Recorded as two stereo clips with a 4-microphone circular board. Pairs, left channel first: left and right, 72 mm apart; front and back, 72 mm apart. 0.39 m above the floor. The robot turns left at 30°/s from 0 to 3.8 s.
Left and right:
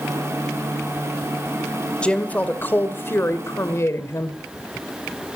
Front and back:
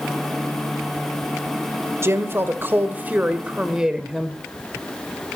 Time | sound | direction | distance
2.0 | a woman speaking | 160° left | 1.6 m